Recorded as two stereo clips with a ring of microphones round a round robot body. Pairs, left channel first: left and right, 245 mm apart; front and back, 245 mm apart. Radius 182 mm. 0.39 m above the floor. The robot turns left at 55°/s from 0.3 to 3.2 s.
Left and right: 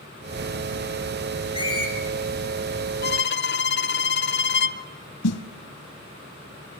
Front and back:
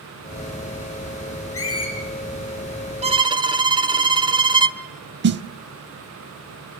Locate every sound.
1.5 s a squeak: 25° left, 8.5 m; by 1.9 s straight ahead, 8.5 m
3.0 s a violin: 120° left, 1.0 m; by 4.8 s 115° left, 1.0 m
5.2 s a snare drum: 130° left, 0.5 m